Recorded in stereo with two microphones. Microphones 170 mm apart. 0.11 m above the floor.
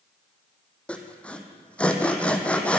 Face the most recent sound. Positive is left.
turn(degrees=5)  # may be behind; listen again after turning